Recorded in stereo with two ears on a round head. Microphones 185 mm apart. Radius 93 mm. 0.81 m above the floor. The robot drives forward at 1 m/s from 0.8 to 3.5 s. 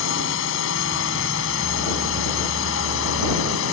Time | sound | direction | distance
0.0 | a drone | 65° left (ahead or behind) | ?